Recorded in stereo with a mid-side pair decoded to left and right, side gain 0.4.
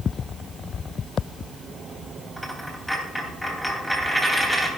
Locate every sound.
2.4 s a dropped coin: 10° left, 3 m